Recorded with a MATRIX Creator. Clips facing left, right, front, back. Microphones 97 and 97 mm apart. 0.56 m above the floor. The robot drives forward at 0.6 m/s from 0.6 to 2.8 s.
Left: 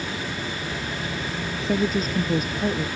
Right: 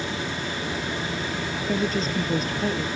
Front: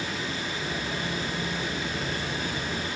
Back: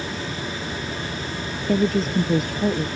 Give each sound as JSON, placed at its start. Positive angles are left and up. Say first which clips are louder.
{"t": 1.7, "sound": "a woman speaking", "louder": "left 3 dB, back 11 dB", "azimuth_deg": 175}